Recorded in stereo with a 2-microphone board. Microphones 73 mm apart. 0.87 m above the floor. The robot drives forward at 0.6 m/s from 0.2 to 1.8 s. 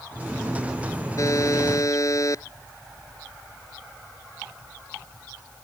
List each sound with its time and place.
1.2 s a buzzer: 50° left (ahead or behind)